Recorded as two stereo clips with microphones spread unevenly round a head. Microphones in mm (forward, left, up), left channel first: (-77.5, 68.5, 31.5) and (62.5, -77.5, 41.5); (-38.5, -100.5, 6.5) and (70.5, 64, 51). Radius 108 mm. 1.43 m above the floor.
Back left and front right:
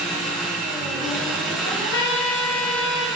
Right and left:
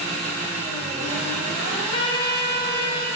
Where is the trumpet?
160° left, 0.9 m.